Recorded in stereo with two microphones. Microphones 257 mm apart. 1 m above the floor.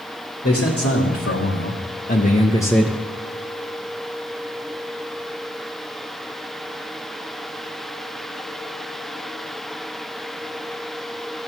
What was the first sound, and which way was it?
A man speaking, 70° left (ahead or behind).